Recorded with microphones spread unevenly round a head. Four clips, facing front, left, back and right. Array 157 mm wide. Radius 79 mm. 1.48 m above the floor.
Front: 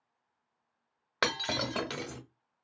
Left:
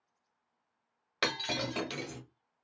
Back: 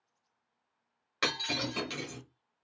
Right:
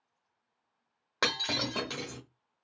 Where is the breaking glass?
25° right, 1.1 m.